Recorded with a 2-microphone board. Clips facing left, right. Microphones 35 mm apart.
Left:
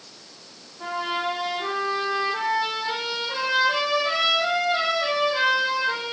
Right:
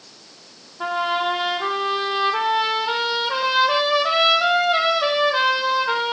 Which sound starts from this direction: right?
A trumpet, at 0.8 s.